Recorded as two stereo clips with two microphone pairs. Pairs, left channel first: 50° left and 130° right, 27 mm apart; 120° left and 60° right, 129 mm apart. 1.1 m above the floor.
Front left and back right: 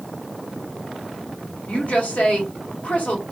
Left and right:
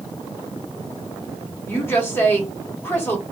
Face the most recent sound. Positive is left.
turn(degrees=45)